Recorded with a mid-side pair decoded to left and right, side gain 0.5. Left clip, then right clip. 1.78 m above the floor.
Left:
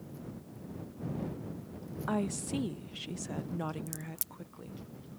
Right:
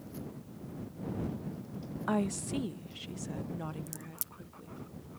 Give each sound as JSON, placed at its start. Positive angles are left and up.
{"t": 2.1, "sound": "a woman speaking", "azimuth_deg": -10}
{"t": 3.9, "sound": "a crack", "azimuth_deg": 15}